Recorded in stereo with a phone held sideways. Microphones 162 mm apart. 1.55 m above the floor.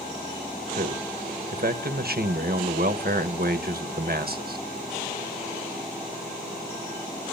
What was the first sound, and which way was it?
A man speaking, 70° right (ahead or behind).